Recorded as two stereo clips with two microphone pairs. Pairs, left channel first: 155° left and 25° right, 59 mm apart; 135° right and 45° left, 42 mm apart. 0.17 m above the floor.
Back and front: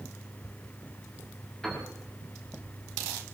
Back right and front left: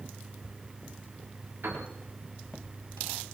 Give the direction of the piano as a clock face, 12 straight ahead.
9 o'clock.